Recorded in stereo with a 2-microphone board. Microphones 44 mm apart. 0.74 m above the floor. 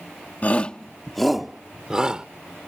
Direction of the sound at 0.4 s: 35° left (ahead or behind).